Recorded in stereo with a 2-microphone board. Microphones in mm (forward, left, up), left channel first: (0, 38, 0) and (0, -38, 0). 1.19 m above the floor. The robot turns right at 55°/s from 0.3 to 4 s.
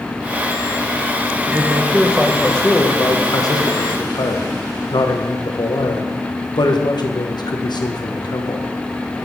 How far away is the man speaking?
About 0.9 m.